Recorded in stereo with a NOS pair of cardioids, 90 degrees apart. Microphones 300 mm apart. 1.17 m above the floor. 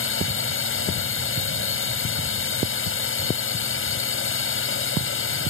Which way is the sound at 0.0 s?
45° left.